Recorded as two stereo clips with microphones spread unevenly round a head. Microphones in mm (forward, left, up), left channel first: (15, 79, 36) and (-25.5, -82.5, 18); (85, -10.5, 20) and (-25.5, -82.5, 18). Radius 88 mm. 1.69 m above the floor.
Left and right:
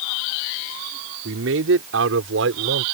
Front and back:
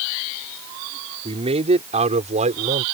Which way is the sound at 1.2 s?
105° right.